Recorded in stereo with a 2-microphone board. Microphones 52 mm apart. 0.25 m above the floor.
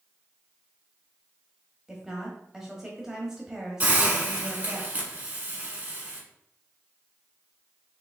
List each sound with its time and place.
1.9 s a woman speaking: 10° right (ahead or behind), 1.1 m
3.8 s a hiss: 30° right (ahead or behind), 1.6 m